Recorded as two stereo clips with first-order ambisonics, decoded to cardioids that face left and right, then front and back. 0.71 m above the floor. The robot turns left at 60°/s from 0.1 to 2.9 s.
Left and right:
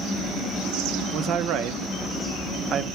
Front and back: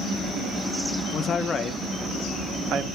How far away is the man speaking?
About 0.6 m.